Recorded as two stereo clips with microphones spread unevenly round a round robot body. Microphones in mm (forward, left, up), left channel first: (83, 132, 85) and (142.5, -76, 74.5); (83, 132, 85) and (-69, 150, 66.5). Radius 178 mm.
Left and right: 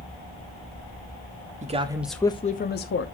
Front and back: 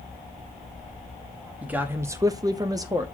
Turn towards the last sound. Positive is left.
turn(degrees=110)